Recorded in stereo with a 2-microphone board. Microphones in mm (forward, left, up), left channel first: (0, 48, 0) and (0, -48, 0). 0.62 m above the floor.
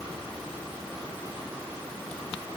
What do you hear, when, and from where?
Only background noise.